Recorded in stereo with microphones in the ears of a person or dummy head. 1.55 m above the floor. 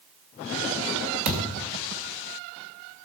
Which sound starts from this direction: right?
A thud, at 1.2 s.